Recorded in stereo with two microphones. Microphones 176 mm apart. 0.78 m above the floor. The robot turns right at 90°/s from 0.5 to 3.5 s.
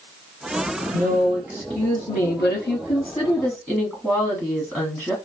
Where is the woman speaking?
45° right, 1.0 m; by 5.2 s 175° right, 1.0 m.